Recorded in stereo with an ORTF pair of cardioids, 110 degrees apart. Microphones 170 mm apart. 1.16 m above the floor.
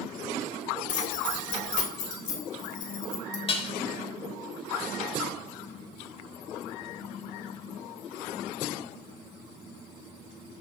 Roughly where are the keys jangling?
Ahead left.